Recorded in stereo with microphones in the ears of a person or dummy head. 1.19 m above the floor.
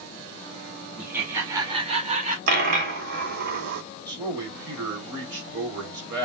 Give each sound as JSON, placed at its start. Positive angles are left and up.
{"t": 1.0, "sound": "laughter", "side_deg": 0, "distance_m": 2.0}
{"t": 2.5, "sound": "a dropped coin", "side_deg": -50, "distance_m": 1.6}
{"t": 4.1, "sound": "a man speaking", "side_deg": -15, "distance_m": 2.5}